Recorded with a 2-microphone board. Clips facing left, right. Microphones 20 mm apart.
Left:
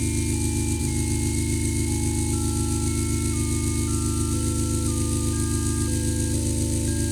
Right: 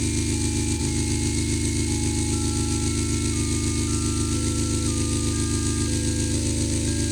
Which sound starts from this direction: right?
An engine running, at 0.0 s.